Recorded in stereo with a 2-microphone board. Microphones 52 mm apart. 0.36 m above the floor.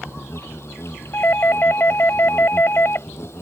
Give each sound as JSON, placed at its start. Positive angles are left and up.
{"t": 0.0, "sound": "an insect", "side_deg": 55}
{"t": 1.1, "sound": "a doorbell", "side_deg": 45}